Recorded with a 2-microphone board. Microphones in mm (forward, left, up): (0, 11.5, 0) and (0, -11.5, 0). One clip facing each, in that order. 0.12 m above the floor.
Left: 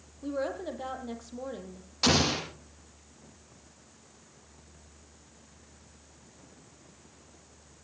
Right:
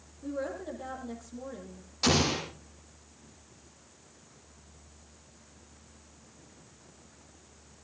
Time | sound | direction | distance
0.2 | a woman speaking | 35° left (ahead or behind) | 4 m
2.0 | an explosion | 15° left (ahead or behind) | 6 m